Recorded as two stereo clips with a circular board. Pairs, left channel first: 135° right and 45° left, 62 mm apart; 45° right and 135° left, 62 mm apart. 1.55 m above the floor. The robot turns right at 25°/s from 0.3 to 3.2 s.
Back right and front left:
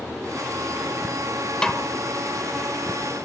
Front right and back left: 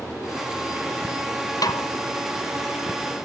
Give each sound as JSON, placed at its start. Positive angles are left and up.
{"t": 1.6, "sound": "a snare drum", "azimuth_deg": -55}